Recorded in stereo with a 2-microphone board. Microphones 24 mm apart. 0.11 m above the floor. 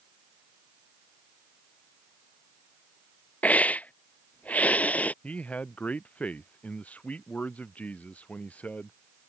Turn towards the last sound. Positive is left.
turn(degrees=70)  # may be behind; listen again after turning